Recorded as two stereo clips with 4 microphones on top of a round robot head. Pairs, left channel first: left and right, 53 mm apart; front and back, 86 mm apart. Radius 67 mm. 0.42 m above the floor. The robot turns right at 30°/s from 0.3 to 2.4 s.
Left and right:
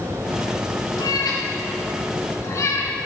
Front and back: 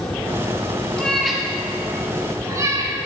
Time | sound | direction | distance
1.0 | a cat meowing | 75° left | 3 m